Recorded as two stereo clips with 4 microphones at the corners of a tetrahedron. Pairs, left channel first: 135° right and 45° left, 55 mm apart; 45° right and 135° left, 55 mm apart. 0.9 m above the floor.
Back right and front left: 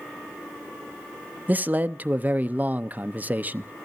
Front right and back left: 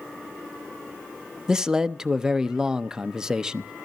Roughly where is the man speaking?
Left.